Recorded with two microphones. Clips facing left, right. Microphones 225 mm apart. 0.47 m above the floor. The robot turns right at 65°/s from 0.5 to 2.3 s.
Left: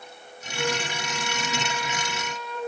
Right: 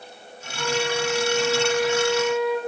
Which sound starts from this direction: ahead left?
A flute, at 0.5 s.